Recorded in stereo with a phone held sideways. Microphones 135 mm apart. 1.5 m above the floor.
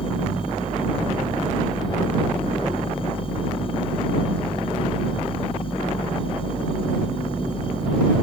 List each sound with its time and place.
0.0 s a machine running: 40° left (ahead or behind)